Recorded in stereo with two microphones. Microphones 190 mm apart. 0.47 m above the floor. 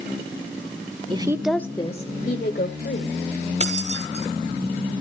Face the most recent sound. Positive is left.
turn(degrees=-40)  # may be behind; listen again after turning